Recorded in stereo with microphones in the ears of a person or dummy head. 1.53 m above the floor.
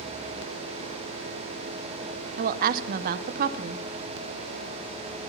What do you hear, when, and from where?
2.4 s a woman speaking: 50° right (ahead or behind), 0.8 m